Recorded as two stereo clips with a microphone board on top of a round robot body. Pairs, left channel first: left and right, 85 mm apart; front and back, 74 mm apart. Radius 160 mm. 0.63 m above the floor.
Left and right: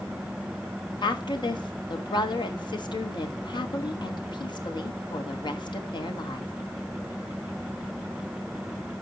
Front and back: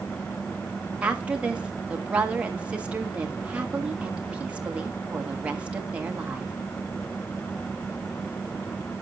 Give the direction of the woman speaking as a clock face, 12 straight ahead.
8 o'clock.